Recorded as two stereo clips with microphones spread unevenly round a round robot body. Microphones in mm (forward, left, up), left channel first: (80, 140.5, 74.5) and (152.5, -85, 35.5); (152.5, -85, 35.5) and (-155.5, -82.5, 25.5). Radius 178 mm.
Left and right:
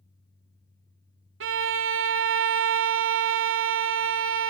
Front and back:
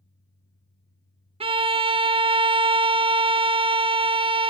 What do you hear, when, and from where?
1.4 s a violin: 105° right, 0.8 m